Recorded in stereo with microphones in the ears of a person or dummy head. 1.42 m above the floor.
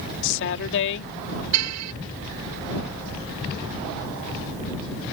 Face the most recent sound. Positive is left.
turn(degrees=-85)